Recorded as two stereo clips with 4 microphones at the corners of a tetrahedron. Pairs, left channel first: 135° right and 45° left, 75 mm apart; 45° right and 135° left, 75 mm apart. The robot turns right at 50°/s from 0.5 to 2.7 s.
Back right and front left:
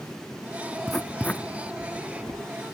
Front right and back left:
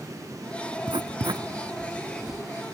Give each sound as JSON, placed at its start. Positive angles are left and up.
{"t": 0.9, "sound": "writing", "azimuth_deg": 135, "distance_m": 0.8}